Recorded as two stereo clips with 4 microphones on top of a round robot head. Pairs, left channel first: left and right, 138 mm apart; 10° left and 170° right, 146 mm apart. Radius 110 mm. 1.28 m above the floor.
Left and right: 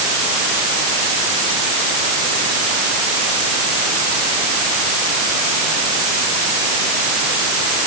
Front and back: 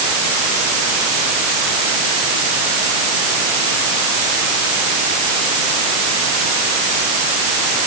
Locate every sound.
Only background noise.